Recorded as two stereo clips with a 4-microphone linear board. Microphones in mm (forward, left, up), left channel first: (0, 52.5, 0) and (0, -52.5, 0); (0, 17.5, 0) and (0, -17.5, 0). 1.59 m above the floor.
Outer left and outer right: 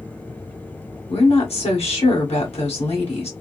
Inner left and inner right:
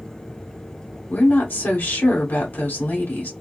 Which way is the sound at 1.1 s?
85° left.